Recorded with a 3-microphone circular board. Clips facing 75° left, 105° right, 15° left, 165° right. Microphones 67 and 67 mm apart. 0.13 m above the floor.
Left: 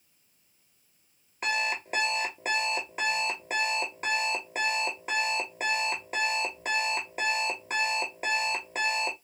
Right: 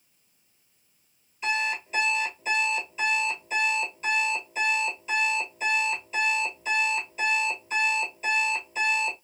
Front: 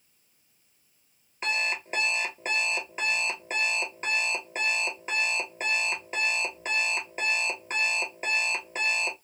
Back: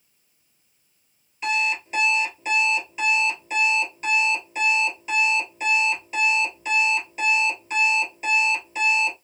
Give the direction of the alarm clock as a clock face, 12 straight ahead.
10 o'clock.